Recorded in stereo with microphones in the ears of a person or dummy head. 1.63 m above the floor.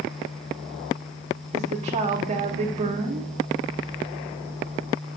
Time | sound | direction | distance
1.5 | a woman speaking | 35° right (ahead or behind) | 0.6 m